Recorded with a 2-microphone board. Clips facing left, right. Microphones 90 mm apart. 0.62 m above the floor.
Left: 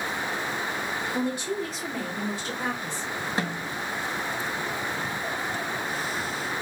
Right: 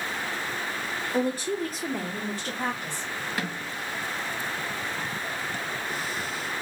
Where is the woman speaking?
35° right (ahead or behind), 1.1 m; by 3.1 s 55° right (ahead or behind), 2 m.